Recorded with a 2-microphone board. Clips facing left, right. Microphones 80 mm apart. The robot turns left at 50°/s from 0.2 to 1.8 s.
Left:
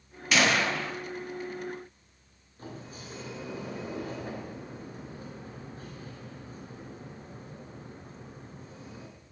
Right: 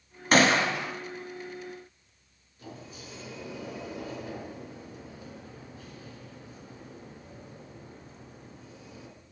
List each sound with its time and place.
0.3 s a gunshot: 140° right, 2.5 m; by 0.9 s 170° right, 2.5 m
2.6 s a sliding door: 40° left (ahead or behind), 3.5 m